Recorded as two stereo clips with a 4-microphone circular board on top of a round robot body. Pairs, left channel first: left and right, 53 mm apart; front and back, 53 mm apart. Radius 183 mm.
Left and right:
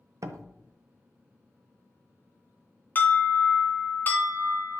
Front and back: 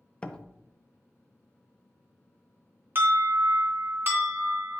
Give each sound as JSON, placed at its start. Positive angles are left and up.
{"t": 0.2, "sound": "a door slam", "azimuth_deg": -70, "distance_m": 0.6}
{"t": 3.0, "sound": "an alarm", "azimuth_deg": 140, "distance_m": 3.0}